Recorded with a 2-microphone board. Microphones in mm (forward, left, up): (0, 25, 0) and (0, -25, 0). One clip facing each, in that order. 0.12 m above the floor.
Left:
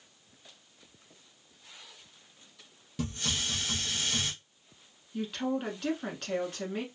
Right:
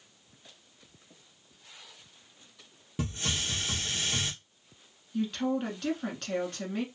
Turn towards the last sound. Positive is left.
turn(degrees=5)  # may be behind; listen again after turning